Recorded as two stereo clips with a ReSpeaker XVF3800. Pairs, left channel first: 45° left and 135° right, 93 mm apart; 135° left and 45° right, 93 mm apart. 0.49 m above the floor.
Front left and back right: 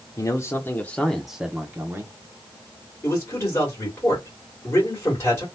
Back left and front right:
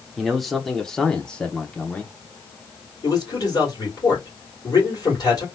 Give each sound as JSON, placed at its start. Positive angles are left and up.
{"t": 0.2, "sound": "a man speaking", "azimuth_deg": 40, "distance_m": 1.0}
{"t": 3.0, "sound": "a man speaking", "azimuth_deg": 105, "distance_m": 2.0}